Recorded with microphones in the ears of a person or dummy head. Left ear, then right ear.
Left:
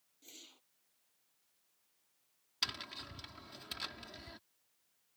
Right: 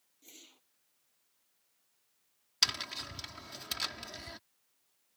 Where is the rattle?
I don't hear a rattle.